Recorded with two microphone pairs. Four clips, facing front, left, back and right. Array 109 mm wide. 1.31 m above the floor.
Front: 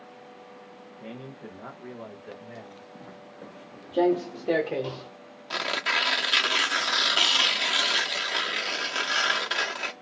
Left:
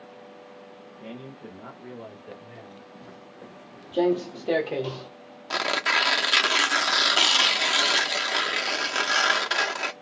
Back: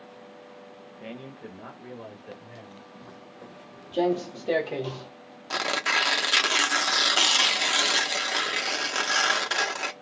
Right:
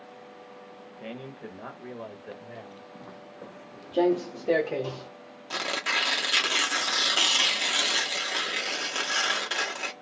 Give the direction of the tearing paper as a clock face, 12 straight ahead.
8 o'clock.